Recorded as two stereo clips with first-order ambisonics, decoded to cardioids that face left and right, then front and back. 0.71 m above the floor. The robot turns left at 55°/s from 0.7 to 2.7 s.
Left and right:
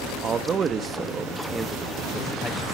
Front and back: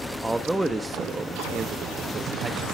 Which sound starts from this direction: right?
A man speaking, at 0.2 s.